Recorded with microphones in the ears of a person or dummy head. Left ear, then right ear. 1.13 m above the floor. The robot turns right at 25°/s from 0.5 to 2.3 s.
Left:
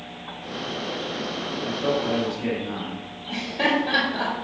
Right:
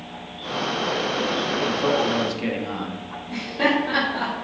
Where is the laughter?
20° left (ahead or behind), 2.5 m.